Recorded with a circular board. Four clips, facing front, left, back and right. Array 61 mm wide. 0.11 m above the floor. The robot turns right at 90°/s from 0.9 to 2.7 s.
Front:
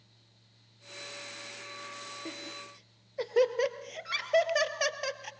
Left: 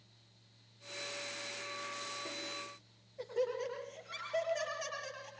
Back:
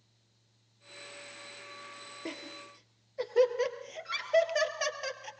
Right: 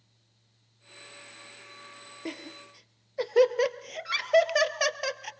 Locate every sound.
2.2 s laughter: 120° right, 2 m; by 5.3 s 80° right, 2 m